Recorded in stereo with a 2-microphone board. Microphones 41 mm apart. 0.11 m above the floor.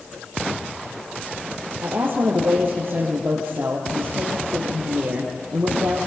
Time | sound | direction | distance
1.8 | a woman speaking | 60° right (ahead or behind) | 2.5 m